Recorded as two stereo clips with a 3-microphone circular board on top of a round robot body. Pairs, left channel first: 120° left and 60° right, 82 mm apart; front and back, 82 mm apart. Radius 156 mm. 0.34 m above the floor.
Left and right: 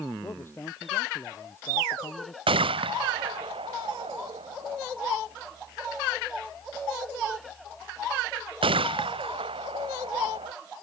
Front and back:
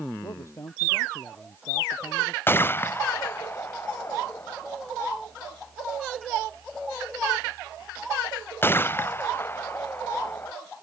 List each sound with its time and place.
0.2 s a man speaking: 55° left; by 2.4 s 65° left
2.5 s a gunshot: 65° right